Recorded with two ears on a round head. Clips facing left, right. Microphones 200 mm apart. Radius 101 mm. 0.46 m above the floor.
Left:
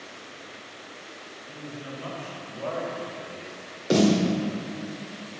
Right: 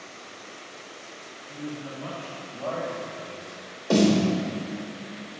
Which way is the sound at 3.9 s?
15° left (ahead or behind).